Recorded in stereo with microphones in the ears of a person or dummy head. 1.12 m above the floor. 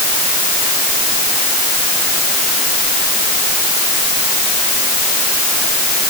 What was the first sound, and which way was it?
Only background noise.